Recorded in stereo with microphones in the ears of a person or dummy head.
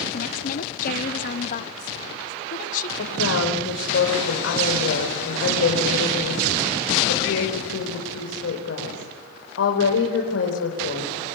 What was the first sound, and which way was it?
A woman speaking, 45° left (ahead or behind).